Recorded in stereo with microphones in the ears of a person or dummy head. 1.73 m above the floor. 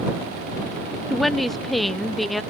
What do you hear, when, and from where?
1.1 s a woman speaking: 5° left (ahead or behind)